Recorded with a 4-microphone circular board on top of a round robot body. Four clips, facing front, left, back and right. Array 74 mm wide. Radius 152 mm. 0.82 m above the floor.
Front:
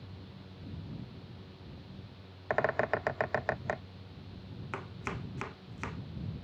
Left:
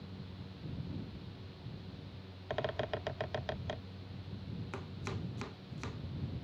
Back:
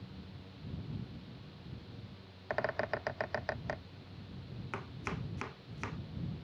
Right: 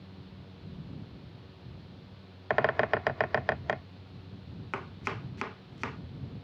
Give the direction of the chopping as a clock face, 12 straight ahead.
3 o'clock.